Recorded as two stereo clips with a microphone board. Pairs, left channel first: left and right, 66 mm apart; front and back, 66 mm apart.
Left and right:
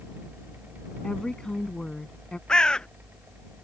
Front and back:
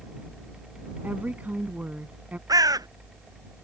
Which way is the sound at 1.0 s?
155° left.